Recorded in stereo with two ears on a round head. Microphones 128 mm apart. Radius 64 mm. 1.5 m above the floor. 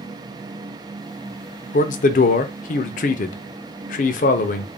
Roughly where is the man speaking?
Left.